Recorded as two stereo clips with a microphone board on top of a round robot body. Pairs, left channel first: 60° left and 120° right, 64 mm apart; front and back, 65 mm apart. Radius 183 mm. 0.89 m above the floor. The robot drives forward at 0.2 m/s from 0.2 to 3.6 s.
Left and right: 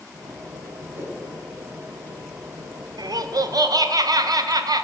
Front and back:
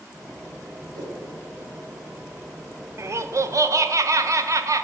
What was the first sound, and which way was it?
A whoosh, 170° right.